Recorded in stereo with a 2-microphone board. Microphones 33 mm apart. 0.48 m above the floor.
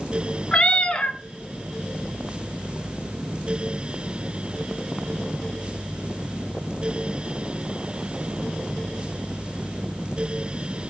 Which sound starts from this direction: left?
A cat meowing, at 0.5 s.